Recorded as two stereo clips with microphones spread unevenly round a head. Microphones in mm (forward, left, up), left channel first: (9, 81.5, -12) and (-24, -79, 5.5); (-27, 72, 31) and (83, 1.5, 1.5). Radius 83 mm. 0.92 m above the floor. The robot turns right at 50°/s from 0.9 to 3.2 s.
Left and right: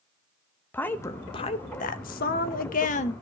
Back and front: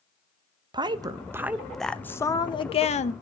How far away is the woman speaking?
About 0.8 m.